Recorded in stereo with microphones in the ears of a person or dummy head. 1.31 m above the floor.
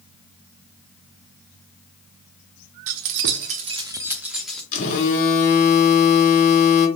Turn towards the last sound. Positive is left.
turn(degrees=45)  # may be behind; listen again after turning